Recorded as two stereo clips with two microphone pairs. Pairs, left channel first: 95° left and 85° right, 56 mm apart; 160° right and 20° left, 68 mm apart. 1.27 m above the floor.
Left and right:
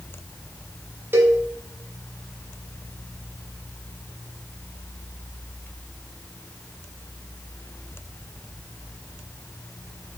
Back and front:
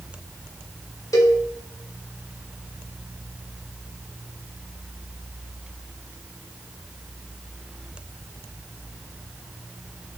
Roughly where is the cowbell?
Behind right.